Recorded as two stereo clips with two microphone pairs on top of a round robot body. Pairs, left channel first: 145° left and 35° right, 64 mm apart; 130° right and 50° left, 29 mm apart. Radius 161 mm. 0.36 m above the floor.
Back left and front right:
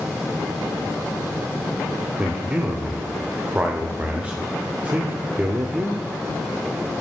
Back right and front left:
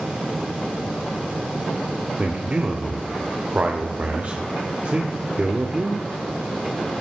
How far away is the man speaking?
About 2 m.